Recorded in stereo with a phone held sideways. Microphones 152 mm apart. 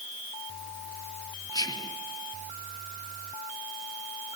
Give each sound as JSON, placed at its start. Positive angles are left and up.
{"t": 1.5, "sound": "whispering", "side_deg": 25, "distance_m": 0.8}